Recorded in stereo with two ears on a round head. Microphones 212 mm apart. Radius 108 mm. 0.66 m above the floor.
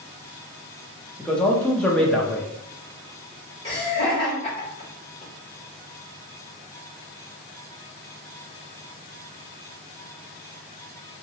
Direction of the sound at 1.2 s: 5° left (ahead or behind).